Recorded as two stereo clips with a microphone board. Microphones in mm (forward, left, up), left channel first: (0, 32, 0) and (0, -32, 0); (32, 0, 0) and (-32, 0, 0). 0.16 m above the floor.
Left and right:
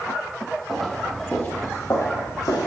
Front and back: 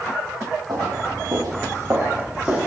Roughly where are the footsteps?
Behind.